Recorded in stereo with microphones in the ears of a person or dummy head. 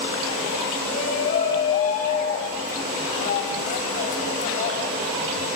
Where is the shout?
40° left (ahead or behind), 6.5 m.